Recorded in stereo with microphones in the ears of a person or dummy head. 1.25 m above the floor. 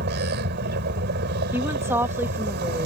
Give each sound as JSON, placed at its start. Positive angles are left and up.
{"t": 0.0, "sound": "a vehicle", "side_deg": -60}
{"t": 1.5, "sound": "a woman speaking", "side_deg": -10}